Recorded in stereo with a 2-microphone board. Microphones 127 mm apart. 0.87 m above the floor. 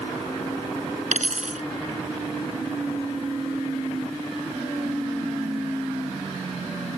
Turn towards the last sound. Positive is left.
turn(degrees=-85)